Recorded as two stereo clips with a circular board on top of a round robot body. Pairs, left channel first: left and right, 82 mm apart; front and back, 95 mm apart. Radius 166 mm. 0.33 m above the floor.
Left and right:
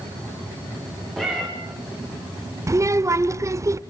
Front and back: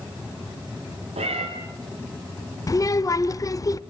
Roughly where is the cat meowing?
Behind.